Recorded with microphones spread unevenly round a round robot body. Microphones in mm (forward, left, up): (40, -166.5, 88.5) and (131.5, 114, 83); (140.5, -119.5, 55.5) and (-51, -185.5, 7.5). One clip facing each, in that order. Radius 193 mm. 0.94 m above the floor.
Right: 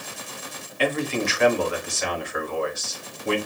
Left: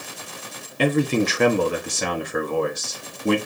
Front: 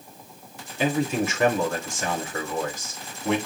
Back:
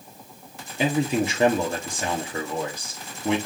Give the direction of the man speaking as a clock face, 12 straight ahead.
8 o'clock.